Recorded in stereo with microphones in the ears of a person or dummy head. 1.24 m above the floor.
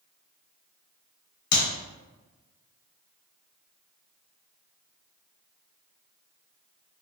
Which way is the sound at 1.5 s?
80° left.